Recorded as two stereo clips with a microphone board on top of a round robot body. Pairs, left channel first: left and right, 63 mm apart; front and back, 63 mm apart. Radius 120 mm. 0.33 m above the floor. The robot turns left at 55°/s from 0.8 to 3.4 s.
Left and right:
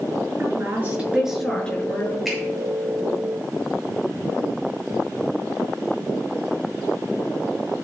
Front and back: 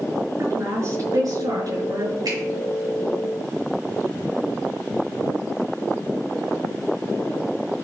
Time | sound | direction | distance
0.4 | a woman speaking | 145° right | 6.5 m
2.2 | a finger snap | 175° right | 6.5 m